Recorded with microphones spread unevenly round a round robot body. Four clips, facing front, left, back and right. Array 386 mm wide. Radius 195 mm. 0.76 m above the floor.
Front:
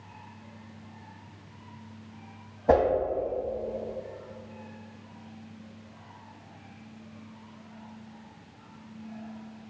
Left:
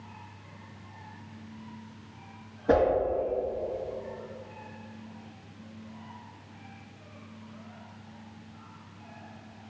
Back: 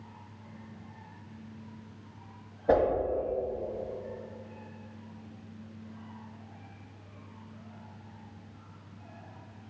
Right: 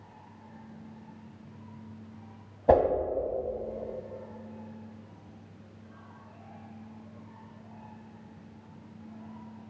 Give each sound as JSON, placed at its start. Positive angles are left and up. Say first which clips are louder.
{"t": 2.7, "sound": "a whoosh", "louder": "right 2 dB, front 3 dB", "azimuth_deg": -55, "distance_m": 2.0}